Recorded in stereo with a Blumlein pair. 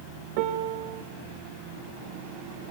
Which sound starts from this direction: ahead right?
A piano, at 0.4 s.